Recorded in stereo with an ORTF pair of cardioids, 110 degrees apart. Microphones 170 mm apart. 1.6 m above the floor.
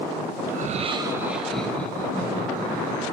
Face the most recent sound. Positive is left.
turn(degrees=30)